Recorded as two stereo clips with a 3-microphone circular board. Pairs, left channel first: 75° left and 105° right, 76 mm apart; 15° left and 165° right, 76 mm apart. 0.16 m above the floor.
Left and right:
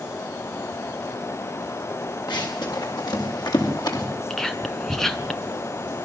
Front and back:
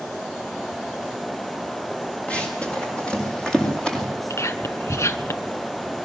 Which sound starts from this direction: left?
Running footsteps, at 2.3 s.